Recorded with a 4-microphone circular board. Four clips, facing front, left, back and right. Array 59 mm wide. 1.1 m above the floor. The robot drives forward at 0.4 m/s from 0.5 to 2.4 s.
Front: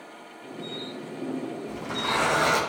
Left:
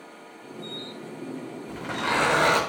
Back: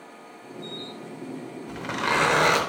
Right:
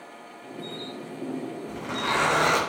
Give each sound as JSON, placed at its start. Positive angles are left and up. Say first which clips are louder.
{"t": 1.7, "sound": "a zipper", "louder": "left 1 dB, back 4 dB", "azimuth_deg": 170, "distance_m": 3.0}